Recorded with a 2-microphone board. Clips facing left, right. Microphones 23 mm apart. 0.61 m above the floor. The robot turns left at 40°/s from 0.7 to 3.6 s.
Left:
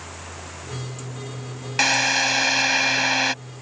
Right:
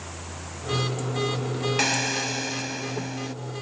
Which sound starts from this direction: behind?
A drill, at 1.8 s.